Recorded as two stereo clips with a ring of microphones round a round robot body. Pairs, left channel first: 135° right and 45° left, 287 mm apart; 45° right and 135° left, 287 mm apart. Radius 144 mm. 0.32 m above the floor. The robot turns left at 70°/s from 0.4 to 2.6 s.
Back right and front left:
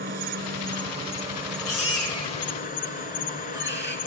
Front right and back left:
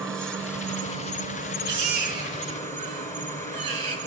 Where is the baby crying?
170° right, 2.5 m; by 4.0 s 125° left, 2.5 m.